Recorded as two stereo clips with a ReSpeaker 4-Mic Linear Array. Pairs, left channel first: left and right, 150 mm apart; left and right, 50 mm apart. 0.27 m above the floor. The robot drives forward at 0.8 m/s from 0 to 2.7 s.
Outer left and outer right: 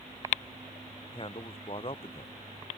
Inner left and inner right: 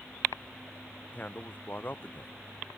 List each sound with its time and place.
1.1 s a man speaking: 35° left (ahead or behind); by 2.3 s 40° left (ahead or behind)